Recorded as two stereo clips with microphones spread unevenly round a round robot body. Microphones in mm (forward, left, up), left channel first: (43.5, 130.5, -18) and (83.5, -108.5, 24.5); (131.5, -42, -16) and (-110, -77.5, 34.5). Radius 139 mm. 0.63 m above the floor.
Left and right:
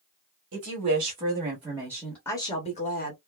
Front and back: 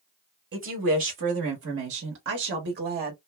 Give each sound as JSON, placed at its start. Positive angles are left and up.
{"t": 0.5, "sound": "a woman speaking", "azimuth_deg": -125, "distance_m": 1.3}